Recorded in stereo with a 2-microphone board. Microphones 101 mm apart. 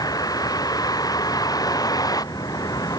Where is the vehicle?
40° left (ahead or behind).